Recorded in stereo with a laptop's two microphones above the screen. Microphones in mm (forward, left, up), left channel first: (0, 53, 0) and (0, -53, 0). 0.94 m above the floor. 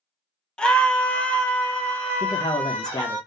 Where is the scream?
10° left (ahead or behind), 0.6 m; by 3.2 s 15° left (ahead or behind), 1.8 m.